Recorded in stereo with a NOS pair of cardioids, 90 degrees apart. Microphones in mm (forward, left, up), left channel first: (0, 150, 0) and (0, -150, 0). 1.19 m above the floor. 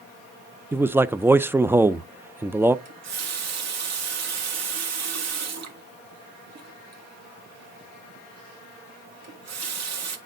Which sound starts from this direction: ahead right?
A running tap, at 2.9 s.